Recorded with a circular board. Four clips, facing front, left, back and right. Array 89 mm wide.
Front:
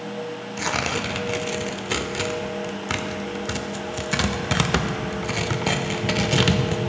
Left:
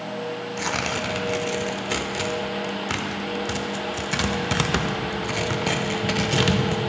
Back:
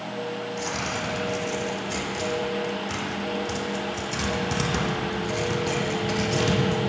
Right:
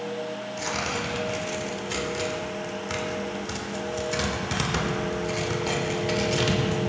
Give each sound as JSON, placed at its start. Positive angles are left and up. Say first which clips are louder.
{"t": 0.6, "sound": "tearing paper", "louder": "left 2 dB, front 3 dB", "azimuth_deg": 30, "distance_m": 0.7}